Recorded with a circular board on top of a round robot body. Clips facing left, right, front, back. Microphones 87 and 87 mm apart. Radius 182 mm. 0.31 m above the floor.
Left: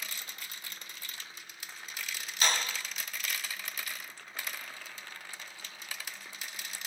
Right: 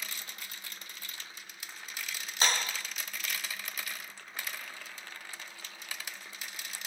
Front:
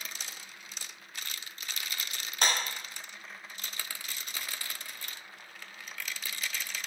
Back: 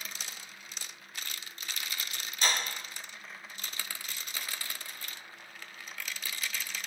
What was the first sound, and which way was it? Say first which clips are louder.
A clap: even, front 1 dB; 30° right.